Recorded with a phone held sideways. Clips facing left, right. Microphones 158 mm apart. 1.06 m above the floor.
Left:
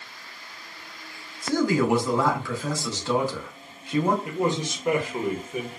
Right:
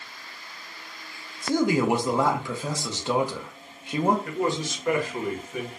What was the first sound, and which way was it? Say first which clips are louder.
A man speaking: even; 20° right (ahead or behind).